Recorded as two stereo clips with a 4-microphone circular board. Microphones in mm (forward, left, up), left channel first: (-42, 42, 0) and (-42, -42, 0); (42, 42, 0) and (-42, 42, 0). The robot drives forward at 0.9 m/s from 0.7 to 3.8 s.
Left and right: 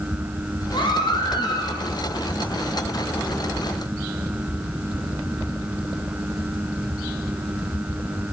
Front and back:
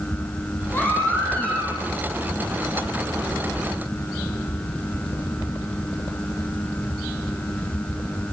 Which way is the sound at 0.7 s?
70° left.